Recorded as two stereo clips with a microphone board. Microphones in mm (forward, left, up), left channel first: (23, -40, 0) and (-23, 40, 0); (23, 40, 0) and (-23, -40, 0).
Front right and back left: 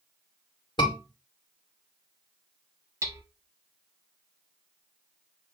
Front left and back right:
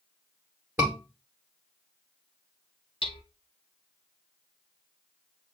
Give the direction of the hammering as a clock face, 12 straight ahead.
10 o'clock.